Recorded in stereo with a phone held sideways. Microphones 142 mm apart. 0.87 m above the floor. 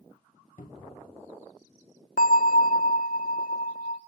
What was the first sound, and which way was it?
A cupboard door, 70° left (ahead or behind).